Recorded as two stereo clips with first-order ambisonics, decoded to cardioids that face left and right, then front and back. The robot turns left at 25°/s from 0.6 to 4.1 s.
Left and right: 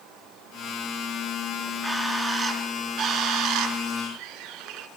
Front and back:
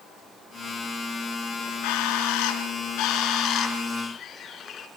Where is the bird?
Straight ahead, 4 m; by 4.9 s 60° right, 4 m.